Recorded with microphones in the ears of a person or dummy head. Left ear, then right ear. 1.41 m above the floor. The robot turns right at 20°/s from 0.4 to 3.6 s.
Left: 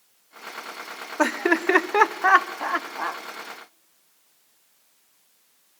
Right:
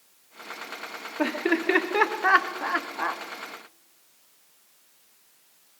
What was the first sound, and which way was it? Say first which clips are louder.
Laughter: left 4 dB; 50° left (ahead or behind).